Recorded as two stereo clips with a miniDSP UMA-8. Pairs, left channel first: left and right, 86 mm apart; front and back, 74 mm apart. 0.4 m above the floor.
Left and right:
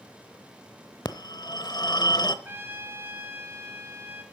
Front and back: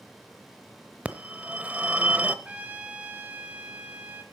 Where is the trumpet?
130° right, 1.6 m.